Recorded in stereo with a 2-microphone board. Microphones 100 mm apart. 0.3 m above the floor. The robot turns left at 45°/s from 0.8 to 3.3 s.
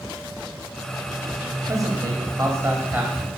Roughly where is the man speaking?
Right.